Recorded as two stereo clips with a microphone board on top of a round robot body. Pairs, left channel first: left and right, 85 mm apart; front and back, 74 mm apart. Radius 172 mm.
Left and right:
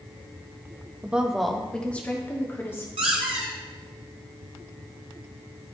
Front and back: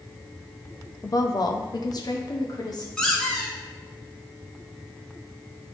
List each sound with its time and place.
1.0 s a woman speaking: 20° right, 0.8 m; by 2.9 s 30° left, 1.5 m
3.0 s a squeak: 80° right, 0.8 m